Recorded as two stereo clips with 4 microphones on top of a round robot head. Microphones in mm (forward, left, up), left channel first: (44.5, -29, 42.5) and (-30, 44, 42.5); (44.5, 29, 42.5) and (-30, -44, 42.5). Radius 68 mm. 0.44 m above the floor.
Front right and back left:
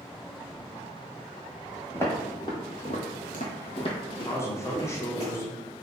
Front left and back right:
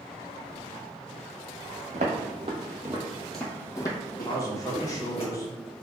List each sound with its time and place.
1.9 s footsteps: 115° right, 1.0 m; by 5.2 s 10° left, 1.6 m
4.2 s a man speaking: 5° left, 0.9 m